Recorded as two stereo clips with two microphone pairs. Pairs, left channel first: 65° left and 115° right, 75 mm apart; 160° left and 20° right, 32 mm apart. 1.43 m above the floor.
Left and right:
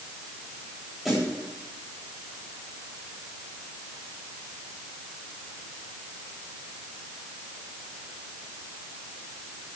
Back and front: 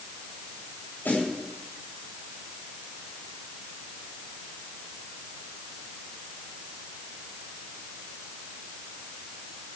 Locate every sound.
1.1 s a snare drum: 155° left, 9 m